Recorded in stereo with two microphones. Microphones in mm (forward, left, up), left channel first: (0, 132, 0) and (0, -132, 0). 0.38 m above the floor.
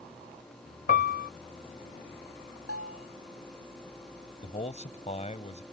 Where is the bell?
60° left (ahead or behind).